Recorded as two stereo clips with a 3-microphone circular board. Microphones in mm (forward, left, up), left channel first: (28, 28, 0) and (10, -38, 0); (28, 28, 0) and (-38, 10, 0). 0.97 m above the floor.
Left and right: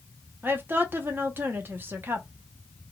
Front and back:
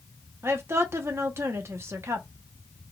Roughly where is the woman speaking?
Behind right.